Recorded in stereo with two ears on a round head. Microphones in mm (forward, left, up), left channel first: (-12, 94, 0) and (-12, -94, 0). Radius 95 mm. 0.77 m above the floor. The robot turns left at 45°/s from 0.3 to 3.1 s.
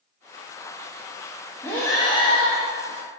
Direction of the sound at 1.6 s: 170° left.